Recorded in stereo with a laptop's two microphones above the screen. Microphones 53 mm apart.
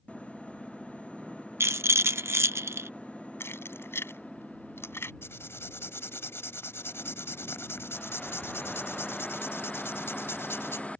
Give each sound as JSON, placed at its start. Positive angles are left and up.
{"t": 1.6, "sound": "a rattle", "side_deg": -55}
{"t": 3.4, "sound": "keys jangling", "side_deg": 50}
{"t": 5.2, "sound": "writing", "side_deg": 50}